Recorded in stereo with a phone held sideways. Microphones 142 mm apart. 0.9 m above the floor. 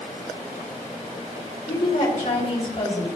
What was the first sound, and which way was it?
A woman speaking, 65° left (ahead or behind).